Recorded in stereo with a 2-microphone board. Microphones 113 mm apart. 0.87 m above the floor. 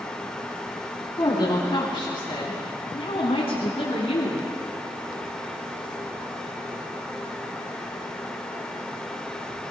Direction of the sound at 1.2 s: 35° left (ahead or behind).